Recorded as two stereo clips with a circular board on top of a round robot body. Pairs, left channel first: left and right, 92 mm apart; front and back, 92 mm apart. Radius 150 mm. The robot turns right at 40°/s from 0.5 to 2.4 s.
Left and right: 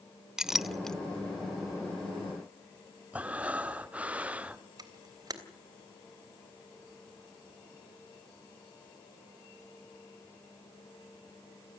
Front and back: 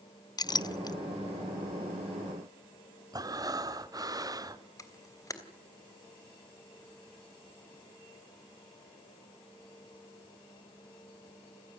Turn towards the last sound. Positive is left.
turn(degrees=-50)